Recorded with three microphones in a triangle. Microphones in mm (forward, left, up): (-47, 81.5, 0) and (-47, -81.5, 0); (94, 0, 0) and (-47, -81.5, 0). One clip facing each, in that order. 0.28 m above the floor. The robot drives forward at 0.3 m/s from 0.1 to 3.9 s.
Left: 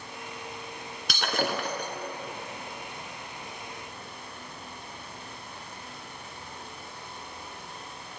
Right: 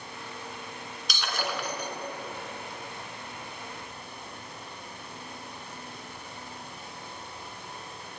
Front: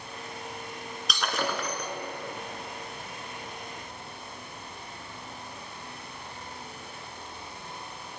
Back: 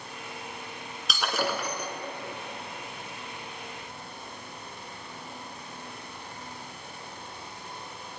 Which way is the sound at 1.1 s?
125° left.